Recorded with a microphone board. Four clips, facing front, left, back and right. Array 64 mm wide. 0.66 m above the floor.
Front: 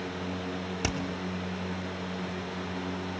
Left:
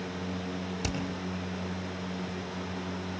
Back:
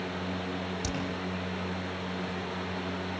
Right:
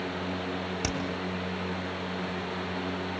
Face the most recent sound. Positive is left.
turn(degrees=-40)